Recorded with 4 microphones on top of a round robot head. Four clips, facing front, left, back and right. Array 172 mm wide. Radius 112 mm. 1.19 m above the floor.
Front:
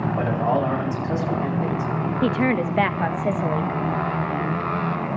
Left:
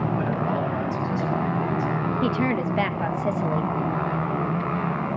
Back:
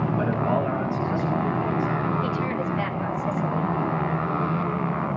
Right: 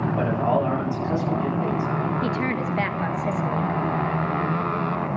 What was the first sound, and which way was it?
A man speaking, 30° right.